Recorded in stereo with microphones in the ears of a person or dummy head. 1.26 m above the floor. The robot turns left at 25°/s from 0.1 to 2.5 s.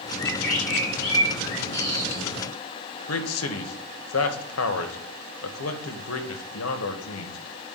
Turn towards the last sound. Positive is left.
turn(degrees=75)  # may be behind; listen again after turning